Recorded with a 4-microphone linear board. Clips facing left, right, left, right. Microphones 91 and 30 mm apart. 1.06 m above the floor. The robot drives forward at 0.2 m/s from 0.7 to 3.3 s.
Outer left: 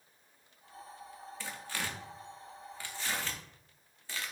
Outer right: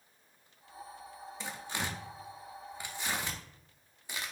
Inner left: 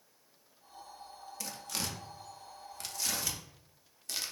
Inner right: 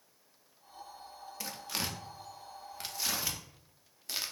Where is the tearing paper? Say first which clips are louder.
Outer right 2 dB, inner right 2 dB; 20° right (ahead or behind), 0.5 m; by 4.3 s 15° right (ahead or behind), 0.6 m.